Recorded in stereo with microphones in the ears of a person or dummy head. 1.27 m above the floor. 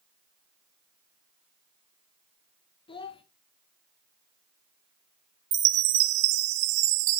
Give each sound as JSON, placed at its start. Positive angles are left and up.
{"t": 2.9, "sound": "a child speaking", "side_deg": 25, "distance_m": 0.8}
{"t": 5.5, "sound": "a chime", "side_deg": -55, "distance_m": 0.8}